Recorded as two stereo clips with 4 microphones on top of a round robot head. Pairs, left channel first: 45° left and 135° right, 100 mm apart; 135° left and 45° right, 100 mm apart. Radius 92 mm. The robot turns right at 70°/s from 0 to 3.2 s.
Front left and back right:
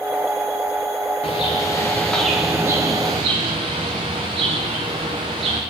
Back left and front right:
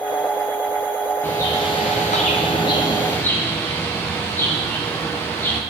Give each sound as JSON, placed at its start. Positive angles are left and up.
{"t": 1.2, "sound": "a bird", "azimuth_deg": 65, "distance_m": 0.7}